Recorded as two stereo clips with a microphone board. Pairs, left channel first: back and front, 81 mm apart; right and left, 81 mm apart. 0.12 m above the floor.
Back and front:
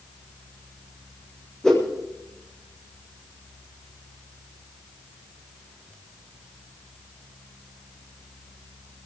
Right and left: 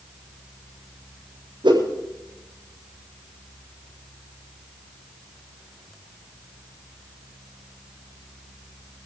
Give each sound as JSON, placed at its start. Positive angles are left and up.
{"t": 1.6, "sound": "a whoosh", "azimuth_deg": 100, "distance_m": 7.0}